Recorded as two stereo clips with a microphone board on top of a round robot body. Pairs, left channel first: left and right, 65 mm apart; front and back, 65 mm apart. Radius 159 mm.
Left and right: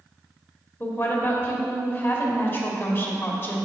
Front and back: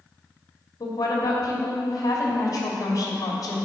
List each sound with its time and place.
0.8 s a woman speaking: 35° left, 2.0 m